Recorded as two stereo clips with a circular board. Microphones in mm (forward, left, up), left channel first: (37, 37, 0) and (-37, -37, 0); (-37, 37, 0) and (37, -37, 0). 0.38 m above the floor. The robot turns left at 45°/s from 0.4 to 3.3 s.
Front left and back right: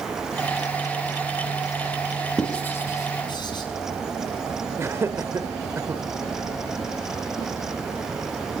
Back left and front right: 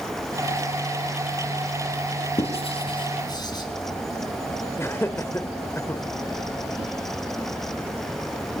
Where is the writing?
130° left, 4.5 m; by 3.6 s 90° left, 4.5 m.